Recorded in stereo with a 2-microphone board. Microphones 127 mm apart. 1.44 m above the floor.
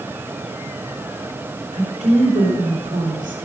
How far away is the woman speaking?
About 4 m.